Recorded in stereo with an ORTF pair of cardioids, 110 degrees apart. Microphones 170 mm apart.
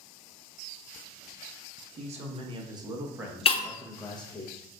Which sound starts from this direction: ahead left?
Breaking glass, at 3.5 s.